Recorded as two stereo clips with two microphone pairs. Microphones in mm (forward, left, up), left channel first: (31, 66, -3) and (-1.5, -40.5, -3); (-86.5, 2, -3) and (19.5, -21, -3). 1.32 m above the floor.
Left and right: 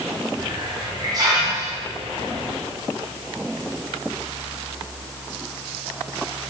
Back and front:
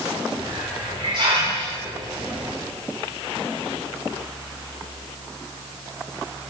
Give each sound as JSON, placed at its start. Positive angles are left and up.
{"t": 0.4, "sound": "a hiss", "azimuth_deg": -55, "distance_m": 5.0}